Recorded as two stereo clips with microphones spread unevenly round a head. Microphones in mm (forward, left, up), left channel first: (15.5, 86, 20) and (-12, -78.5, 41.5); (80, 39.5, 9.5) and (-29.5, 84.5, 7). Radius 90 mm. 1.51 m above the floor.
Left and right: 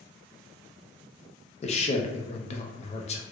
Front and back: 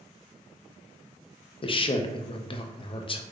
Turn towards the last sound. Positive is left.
turn(degrees=25)